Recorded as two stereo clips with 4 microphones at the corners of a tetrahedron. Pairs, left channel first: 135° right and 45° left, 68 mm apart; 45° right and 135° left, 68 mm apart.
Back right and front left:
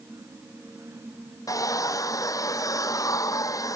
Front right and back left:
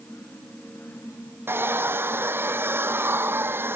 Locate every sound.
1.5 s a hair dryer: 170° right